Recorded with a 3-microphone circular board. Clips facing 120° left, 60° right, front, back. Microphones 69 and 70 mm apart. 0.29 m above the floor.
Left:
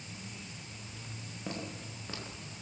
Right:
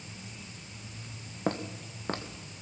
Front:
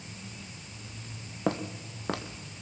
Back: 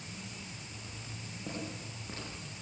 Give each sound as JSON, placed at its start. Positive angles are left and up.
{"t": 1.5, "sound": "footsteps", "azimuth_deg": -15, "distance_m": 2.5}